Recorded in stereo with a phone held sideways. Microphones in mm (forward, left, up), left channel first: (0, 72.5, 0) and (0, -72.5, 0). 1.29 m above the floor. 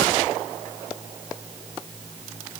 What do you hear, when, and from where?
Only background noise.